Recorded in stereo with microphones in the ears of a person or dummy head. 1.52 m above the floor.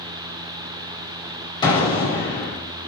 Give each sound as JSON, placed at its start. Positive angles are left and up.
{"t": 1.6, "sound": "an explosion", "side_deg": 25, "distance_m": 3.5}